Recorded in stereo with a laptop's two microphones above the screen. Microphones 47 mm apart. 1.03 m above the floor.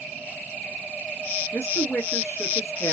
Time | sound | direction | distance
1.5 | a woman speaking | 65° left (ahead or behind) | 2.5 m